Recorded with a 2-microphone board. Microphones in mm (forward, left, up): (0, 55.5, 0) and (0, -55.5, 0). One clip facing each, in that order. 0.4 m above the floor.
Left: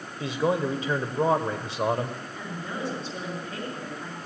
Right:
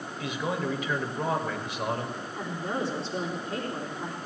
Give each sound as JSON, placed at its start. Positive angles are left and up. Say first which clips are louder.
{"t": 0.2, "sound": "a man speaking", "louder": "left 6 dB", "side_deg": 35, "distance_m": 1.1}
{"t": 2.4, "sound": "a woman speaking", "louder": "right 4 dB", "side_deg": -35, "distance_m": 4.0}